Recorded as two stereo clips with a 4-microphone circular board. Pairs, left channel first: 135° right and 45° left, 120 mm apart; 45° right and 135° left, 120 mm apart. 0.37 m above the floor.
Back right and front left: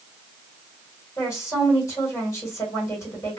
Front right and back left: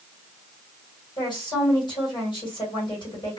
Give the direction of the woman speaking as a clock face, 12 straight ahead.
3 o'clock.